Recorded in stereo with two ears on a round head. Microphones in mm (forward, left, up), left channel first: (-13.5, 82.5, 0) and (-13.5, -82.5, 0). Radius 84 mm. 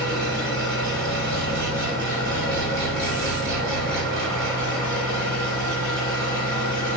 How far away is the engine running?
About 4.5 m.